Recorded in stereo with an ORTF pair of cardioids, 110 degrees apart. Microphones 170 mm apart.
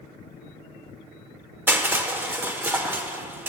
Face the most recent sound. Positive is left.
turn(degrees=-15)